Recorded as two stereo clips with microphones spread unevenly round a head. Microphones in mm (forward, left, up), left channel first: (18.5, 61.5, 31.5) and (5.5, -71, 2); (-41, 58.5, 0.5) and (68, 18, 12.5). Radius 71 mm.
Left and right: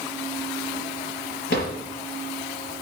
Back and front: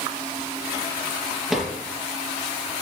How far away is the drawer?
About 6.5 m.